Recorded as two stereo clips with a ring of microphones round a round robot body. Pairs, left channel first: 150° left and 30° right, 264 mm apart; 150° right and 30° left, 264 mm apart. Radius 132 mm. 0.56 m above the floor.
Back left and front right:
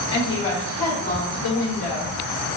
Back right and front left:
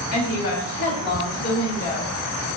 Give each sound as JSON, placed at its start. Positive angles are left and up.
{"t": 0.1, "sound": "a woman speaking", "azimuth_deg": -165, "distance_m": 1.6}